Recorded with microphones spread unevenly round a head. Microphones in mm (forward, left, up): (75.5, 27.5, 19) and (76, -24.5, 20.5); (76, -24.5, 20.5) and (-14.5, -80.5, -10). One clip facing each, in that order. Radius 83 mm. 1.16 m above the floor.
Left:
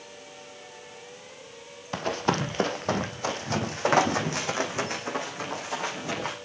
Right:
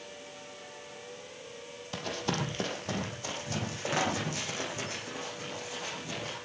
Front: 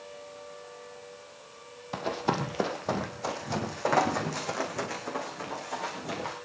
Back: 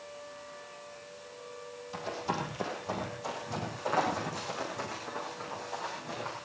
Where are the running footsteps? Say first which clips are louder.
Left 7 dB, front 5 dB; 45° left, 3 m; by 6.3 s 65° left, 6.5 m.